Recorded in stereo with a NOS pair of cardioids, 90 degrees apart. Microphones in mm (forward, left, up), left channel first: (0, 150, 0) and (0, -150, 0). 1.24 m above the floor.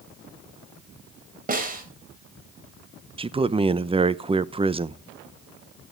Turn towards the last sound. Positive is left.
turn(degrees=-20)